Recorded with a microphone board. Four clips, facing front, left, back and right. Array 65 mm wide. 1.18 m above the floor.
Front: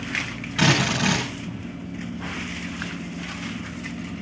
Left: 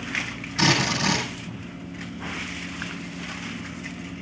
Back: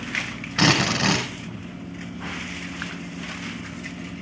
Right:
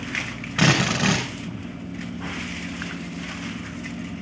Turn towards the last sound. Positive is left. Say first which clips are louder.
# right 2 dB, back 1 dB
turn(degrees=-130)